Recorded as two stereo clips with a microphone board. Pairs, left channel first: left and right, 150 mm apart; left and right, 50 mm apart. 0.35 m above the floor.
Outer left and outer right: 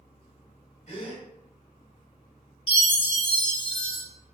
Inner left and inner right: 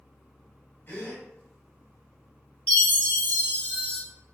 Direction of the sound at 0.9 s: 50° left (ahead or behind).